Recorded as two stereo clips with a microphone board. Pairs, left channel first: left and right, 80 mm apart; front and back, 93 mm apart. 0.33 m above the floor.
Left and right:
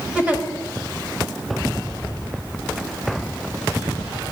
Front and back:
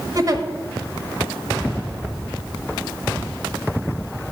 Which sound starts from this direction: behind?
A giggle, at 0.1 s.